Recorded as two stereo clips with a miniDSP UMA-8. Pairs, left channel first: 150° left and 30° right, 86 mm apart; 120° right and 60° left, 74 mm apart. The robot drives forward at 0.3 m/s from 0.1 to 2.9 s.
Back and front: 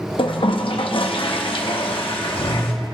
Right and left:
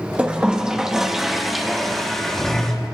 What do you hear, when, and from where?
0.2 s a toilet flushing: 135° left, 0.8 m; by 2.7 s 160° left, 1.4 m